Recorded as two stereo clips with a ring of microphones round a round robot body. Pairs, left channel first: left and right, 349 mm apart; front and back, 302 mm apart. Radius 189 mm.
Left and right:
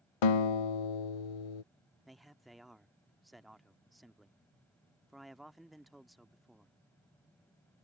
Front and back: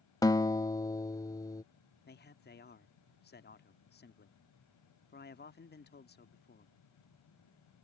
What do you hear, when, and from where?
0.2 s a guitar: 80° left
2.1 s a man speaking: straight ahead